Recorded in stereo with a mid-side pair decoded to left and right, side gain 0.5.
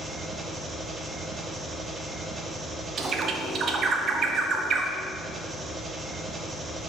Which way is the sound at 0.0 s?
30° right.